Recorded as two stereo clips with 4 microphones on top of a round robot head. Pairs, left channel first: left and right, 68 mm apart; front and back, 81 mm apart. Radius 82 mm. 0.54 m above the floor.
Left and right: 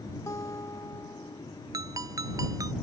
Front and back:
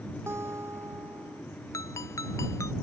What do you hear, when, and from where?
0.3 s a guitar: 130° left
1.7 s a ringtone: 55° right